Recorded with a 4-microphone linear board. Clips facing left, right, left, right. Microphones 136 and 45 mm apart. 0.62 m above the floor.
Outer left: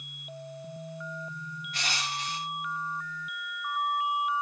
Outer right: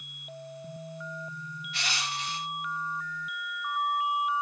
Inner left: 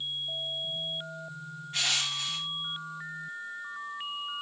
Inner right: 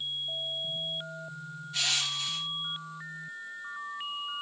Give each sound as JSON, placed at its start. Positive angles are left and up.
{"t": 1.7, "sound": "crushing", "side_deg": 45, "distance_m": 0.8}